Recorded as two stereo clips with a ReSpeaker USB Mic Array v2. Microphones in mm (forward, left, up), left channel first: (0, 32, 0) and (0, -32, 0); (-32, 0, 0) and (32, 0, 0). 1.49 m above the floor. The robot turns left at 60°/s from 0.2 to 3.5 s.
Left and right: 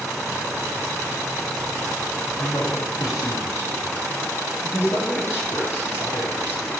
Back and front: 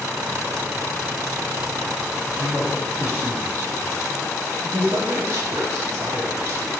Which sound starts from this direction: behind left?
A man speaking, at 2.4 s.